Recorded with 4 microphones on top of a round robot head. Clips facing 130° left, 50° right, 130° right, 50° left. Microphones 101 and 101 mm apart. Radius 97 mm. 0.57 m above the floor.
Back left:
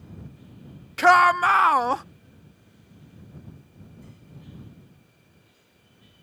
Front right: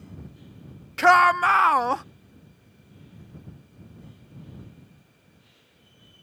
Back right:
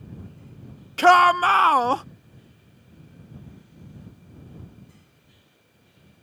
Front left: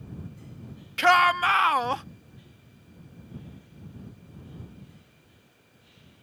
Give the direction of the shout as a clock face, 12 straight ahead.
5 o'clock.